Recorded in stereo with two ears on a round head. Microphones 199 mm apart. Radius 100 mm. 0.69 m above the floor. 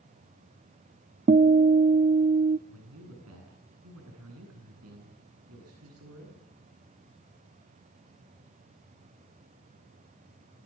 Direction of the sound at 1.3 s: 40° right (ahead or behind).